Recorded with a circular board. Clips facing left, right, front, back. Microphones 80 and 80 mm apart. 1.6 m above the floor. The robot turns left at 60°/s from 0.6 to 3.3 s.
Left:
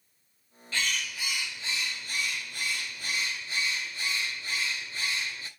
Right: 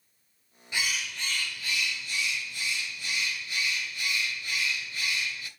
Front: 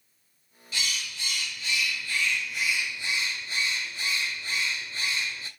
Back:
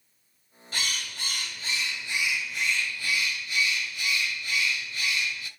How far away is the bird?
About 1.8 m.